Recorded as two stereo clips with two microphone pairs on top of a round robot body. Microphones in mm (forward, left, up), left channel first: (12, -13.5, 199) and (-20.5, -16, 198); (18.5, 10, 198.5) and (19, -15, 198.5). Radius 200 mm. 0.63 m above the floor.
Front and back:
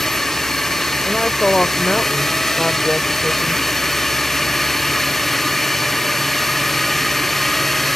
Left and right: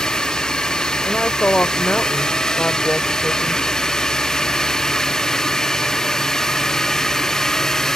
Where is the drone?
75° left; by 8.0 s 80° left.